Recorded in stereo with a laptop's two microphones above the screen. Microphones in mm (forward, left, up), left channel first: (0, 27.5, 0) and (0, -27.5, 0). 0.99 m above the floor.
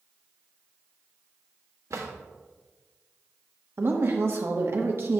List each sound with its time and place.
1.9 s a drawer: 70° right (ahead or behind), 1.2 m
3.8 s a woman speaking: 45° right (ahead or behind), 1.3 m